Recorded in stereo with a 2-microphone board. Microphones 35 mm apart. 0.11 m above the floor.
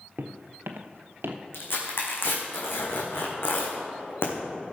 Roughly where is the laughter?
No laughter in this recording.